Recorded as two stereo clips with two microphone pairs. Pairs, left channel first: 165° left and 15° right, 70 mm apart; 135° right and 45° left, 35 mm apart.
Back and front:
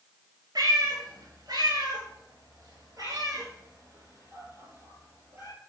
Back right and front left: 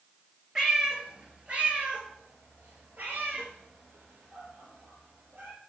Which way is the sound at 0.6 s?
30° right.